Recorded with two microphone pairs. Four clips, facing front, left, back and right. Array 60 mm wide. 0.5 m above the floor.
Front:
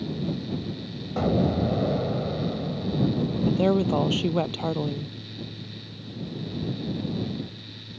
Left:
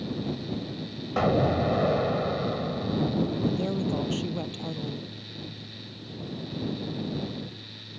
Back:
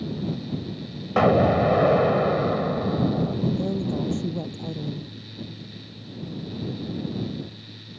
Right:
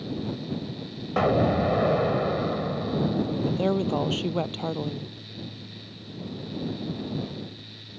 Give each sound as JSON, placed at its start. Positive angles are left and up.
{"t": 1.2, "sound": "an explosion", "azimuth_deg": -165}
{"t": 3.5, "sound": "a woman speaking", "azimuth_deg": -30}